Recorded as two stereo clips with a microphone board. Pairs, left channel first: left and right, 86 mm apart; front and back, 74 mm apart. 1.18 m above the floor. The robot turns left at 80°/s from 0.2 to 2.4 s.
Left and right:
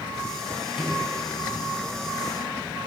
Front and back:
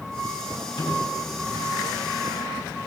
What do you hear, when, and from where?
0.8 s a microwave: straight ahead, 8 m; by 1.0 s 20° right, 8 m